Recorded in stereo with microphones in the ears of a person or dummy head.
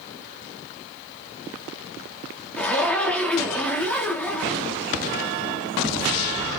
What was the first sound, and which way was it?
A zipper, 5° left (ahead or behind).